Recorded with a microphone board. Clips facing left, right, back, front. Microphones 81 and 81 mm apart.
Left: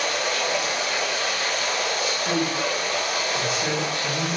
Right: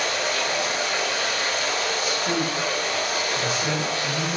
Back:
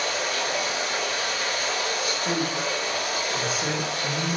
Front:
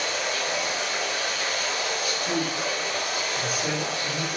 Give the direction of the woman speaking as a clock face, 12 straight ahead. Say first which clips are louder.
Even, back 1 dB; 6 o'clock.